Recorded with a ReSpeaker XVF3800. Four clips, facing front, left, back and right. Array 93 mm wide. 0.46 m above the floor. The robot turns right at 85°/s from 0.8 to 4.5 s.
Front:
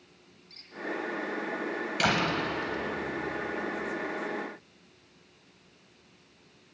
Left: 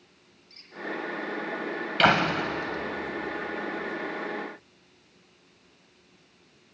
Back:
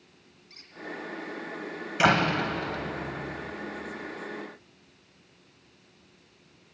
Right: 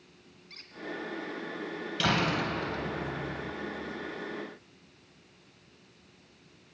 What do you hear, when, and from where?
0.5 s a squeak: 105° right, 2.5 m
2.0 s a door slam: 115° left, 1.9 m; by 3.5 s 115° right, 1.9 m